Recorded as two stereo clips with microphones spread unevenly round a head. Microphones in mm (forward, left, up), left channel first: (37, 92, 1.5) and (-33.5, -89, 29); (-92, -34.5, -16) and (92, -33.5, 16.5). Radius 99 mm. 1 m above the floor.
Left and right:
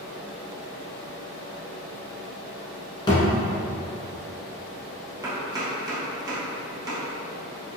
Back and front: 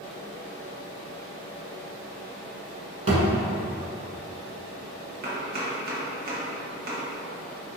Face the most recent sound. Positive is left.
turn(degrees=-40)